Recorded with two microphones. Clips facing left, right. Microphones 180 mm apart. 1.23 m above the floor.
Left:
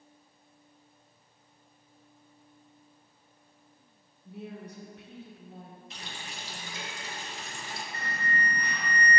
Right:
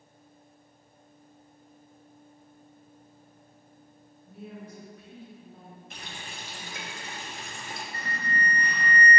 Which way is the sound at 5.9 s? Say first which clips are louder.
Right 1 dB; 50° right (ahead or behind).